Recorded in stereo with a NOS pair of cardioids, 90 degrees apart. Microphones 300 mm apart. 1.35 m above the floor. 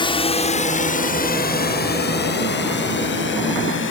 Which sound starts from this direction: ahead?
A drone, at 0.0 s.